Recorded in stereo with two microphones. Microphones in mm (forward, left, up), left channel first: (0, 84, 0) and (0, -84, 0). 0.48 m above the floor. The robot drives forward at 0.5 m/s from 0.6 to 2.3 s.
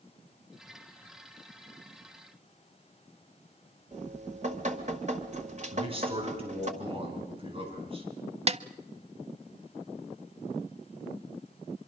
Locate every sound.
3.9 s dripping: 45° right (ahead or behind), 1.7 m
5.7 s a man speaking: 35° right (ahead or behind), 6.5 m
8.5 s a snare drum: 40° right (ahead or behind), 0.5 m